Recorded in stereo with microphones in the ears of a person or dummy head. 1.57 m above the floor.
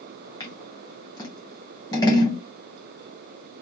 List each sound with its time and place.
0.4 s scissors: 20° left (ahead or behind), 0.5 m